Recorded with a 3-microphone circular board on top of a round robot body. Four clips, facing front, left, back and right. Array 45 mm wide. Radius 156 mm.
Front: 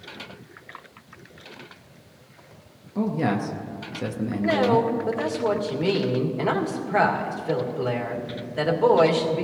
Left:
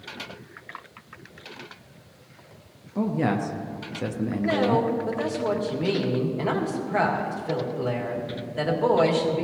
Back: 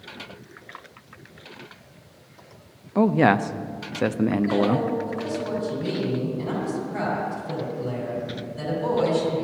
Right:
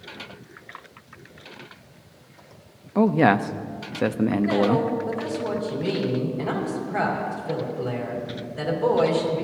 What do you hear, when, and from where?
3.0 s a man speaking: 135° right, 0.7 m
4.4 s a woman speaking: 25° left, 2.5 m